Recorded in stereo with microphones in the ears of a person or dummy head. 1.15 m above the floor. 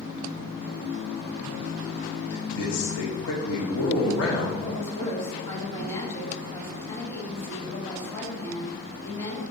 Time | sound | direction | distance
2.3 | a man speaking | 70° left (ahead or behind) | 1.8 m
4.6 | a woman speaking | 15° left (ahead or behind) | 2.5 m